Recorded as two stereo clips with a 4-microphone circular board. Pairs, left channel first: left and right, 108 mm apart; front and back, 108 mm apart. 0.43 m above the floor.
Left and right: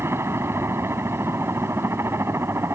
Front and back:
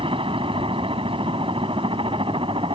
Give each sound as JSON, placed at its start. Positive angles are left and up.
{"t": 0.0, "sound": "a helicopter", "azimuth_deg": -155}